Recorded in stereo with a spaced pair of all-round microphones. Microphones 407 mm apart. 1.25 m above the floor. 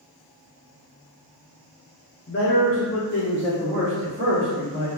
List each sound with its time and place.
2.3 s a man speaking: 35° left (ahead or behind), 0.5 m; by 4.9 s 20° left (ahead or behind), 1.5 m